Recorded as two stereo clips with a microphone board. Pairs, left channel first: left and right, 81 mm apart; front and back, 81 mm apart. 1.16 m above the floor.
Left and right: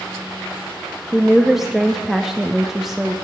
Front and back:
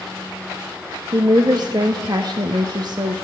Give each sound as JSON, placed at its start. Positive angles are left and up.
{"t": 1.1, "sound": "a woman speaking", "azimuth_deg": -175, "distance_m": 0.8}